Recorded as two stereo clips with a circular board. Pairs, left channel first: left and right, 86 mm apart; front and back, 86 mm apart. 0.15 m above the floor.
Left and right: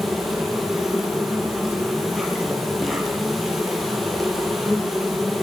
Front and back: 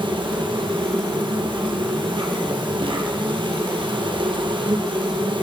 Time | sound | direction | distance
0.0 | an insect | straight behind | 5 m